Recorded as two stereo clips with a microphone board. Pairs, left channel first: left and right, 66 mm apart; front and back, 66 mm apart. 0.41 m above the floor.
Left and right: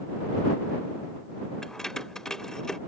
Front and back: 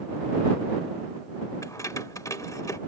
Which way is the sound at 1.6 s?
10° left.